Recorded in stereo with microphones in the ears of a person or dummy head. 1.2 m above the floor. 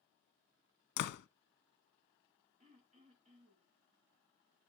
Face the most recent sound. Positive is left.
turn(degrees=-40)  # may be behind; listen again after turning